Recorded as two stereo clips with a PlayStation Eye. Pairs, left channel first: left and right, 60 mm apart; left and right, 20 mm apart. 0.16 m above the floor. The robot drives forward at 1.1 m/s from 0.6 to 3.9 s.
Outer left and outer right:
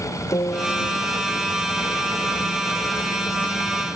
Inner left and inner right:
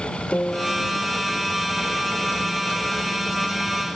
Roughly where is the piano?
Left.